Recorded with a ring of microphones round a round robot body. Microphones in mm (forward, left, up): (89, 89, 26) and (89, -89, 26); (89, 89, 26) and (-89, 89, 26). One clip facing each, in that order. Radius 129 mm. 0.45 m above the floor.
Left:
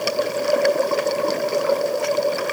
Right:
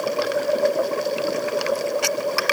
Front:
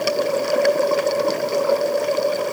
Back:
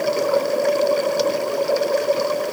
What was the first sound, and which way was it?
Only background noise.